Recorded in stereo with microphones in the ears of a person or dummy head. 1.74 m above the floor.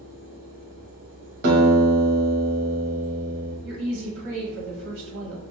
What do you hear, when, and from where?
0.0 s a fan: 10° right (ahead or behind), 2.0 m
1.4 s a guitar: 55° right (ahead or behind), 1.2 m
3.6 s a woman speaking: 55° right (ahead or behind), 1.0 m